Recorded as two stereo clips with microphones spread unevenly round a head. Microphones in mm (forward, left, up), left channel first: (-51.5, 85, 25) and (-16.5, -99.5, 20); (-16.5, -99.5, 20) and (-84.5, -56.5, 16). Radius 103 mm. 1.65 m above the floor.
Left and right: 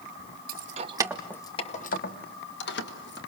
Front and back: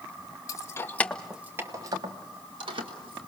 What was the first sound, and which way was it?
Keys jangling, 55° right.